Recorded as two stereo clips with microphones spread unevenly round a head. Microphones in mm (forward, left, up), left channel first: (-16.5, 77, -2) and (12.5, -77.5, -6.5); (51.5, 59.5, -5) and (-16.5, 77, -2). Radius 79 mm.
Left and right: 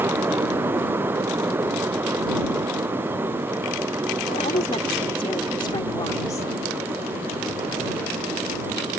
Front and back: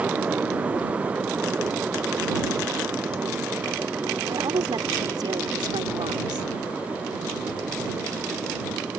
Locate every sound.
4.3 s a woman speaking: 150° left; by 6.5 s 170° left